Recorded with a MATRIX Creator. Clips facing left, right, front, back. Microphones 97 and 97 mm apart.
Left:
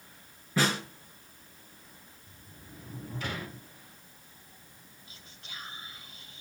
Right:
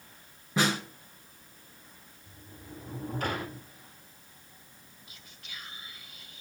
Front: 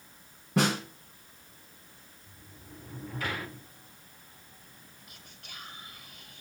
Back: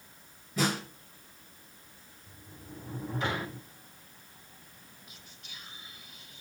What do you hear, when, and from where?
0.6 s a snare drum: 20° right, 4 m
2.3 s a sliding door: 120° right, 1.7 m
5.1 s whispering: 30° left, 2.5 m